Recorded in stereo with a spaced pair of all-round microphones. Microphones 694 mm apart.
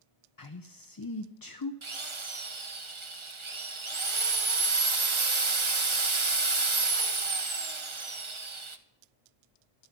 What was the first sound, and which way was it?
A man speaking, 35° left (ahead or behind).